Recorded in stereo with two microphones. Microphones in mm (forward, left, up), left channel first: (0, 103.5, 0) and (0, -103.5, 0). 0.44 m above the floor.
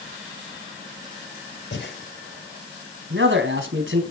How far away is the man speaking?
About 4 m.